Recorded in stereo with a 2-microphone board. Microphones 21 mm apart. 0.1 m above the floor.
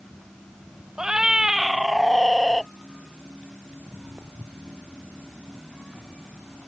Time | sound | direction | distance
1.0 | a cat meowing | 35° right (ahead or behind) | ?
3.7 | footsteps | 50° right (ahead or behind) | ?